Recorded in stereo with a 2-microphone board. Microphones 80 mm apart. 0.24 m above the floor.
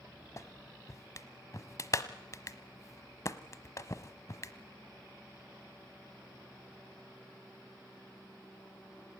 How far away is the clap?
About 1.1 m.